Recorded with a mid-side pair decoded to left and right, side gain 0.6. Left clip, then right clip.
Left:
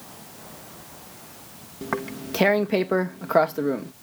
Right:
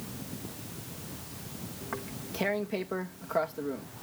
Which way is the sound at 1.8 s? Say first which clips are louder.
Left 11 dB; 50° left.